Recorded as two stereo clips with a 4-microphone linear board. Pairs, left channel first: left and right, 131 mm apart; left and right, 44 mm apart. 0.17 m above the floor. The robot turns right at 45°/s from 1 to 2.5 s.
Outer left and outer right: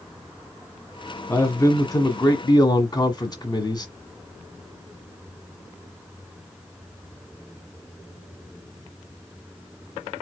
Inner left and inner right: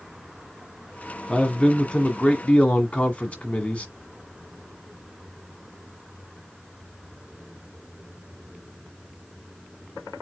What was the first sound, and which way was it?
A man speaking, 35° left.